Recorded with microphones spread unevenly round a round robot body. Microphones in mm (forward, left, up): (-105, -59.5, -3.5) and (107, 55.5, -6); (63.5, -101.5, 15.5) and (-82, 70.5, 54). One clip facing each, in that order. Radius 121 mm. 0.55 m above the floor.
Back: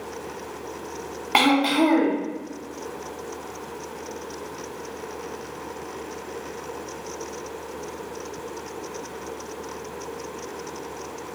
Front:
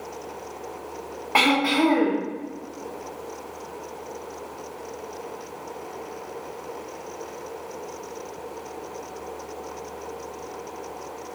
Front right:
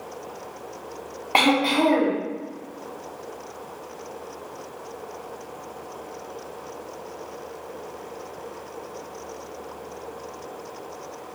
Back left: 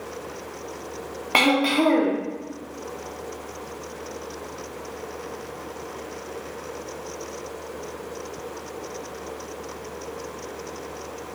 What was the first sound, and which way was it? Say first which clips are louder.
Throat clearing: back 2 dB, even; 155° right.